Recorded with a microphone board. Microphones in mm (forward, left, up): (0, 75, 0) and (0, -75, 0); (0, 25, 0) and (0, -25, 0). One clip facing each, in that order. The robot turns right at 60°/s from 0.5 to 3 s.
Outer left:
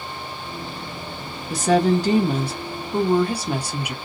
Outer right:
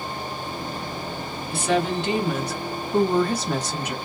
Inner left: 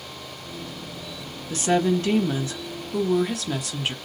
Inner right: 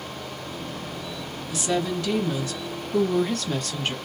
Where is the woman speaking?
75° left, 0.9 m; by 4.0 s 165° left, 0.9 m.